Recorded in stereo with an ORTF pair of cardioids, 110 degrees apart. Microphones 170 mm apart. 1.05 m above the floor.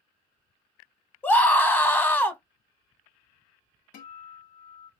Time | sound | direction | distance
1.2 | a scream | 10° left | 0.9 m
3.9 | a guitar | 55° left | 0.7 m